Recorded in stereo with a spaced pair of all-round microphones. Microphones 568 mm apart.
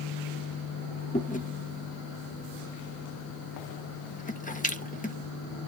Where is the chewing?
15° left (ahead or behind), 1.0 m.